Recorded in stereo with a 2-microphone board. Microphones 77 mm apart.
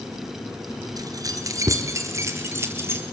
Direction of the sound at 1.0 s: 50° right (ahead or behind).